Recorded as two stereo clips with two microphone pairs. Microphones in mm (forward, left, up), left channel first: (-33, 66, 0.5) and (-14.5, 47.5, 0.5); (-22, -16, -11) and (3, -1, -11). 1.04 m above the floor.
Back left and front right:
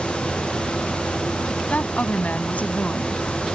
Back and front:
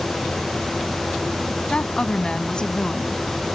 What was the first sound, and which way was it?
A woman speaking, 150° left.